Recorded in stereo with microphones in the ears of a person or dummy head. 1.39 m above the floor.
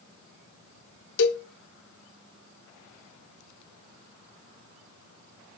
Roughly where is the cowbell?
Left.